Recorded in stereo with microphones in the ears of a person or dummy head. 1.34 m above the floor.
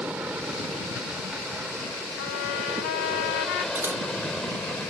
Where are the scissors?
15° right (ahead or behind).